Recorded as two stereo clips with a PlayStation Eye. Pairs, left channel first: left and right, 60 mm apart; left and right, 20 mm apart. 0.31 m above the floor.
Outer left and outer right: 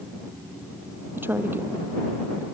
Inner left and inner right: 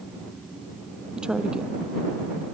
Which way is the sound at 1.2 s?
35° right (ahead or behind).